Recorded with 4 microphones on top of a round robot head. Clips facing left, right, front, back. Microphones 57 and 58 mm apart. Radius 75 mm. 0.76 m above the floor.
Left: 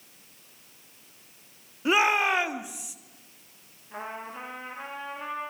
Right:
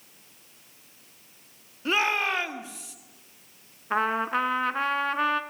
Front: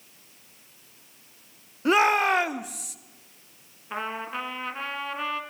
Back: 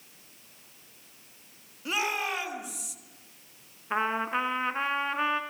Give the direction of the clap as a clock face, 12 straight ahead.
No clap in this recording.